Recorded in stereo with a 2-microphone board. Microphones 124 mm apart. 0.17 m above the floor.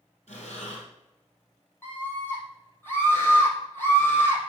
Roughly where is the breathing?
Left.